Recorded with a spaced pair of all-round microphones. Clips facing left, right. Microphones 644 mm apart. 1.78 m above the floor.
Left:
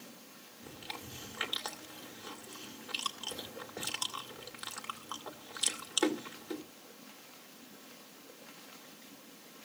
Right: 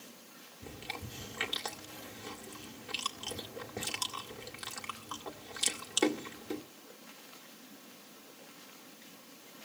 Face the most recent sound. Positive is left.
turn(degrees=-50)  # may be behind; listen again after turning